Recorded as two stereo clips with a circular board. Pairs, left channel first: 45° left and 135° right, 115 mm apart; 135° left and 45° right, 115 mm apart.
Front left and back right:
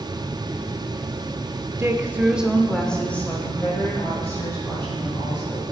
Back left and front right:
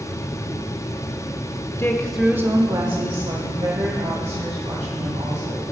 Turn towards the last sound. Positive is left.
turn(degrees=-25)